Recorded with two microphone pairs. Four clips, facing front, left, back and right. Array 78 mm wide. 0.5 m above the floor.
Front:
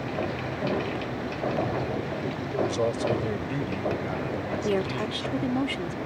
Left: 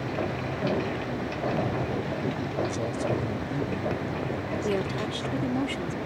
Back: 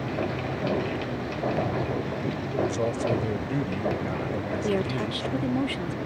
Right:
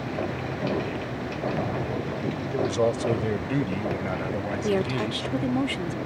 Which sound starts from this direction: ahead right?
A woman speaking, at 4.6 s.